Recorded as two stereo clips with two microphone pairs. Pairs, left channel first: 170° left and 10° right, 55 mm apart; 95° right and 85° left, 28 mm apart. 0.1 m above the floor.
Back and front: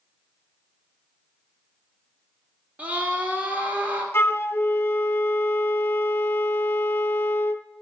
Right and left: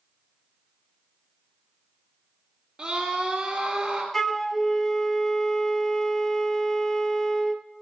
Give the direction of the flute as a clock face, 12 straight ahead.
6 o'clock.